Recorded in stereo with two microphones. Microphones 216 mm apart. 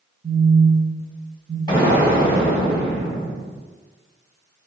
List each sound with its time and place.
0.2 s a phone buzzing: 70° right (ahead or behind), 1.9 m
1.7 s an explosion: 20° left (ahead or behind), 1.5 m